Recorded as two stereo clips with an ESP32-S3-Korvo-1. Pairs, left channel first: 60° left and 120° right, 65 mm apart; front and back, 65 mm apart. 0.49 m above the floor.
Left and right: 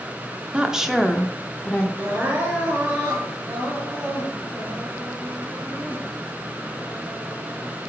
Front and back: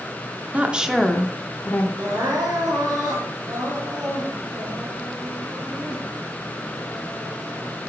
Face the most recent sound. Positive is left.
turn(degrees=180)